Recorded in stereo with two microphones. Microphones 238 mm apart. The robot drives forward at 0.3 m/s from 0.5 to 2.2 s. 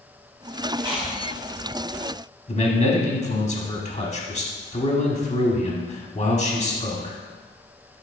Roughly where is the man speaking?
Left.